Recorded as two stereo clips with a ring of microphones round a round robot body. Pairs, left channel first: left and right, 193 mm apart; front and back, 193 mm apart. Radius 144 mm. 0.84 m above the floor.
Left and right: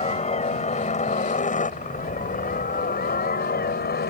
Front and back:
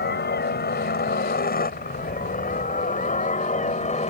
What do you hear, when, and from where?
0.0 s a helicopter: 35° left; by 4.1 s 55° left